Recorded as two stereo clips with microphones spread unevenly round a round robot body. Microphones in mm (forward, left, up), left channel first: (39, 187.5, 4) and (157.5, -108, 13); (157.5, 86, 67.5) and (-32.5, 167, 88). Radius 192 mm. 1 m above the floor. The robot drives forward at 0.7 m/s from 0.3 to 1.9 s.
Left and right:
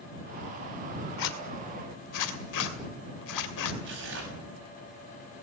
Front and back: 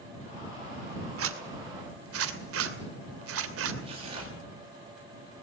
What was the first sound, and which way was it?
A zipper, 155° left.